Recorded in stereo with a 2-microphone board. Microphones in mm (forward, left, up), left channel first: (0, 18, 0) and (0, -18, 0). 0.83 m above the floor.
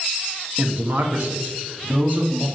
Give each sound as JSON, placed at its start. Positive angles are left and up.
{"t": 0.6, "sound": "a man speaking", "side_deg": -50, "distance_m": 1.1}